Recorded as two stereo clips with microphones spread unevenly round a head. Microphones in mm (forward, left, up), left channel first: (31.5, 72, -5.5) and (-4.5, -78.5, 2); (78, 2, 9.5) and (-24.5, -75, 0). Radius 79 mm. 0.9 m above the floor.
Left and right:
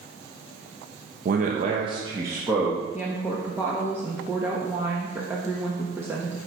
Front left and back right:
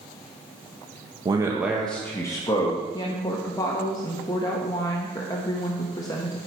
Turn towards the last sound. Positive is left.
turn(degrees=-25)